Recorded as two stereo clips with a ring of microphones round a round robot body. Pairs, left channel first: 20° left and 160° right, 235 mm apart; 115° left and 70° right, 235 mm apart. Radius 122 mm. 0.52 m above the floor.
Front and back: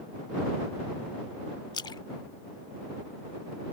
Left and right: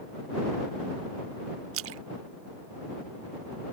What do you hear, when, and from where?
1.7 s a splash: 50° right